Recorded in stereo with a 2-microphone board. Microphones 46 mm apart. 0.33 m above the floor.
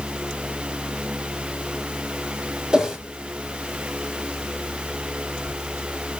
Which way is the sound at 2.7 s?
15° right (ahead or behind).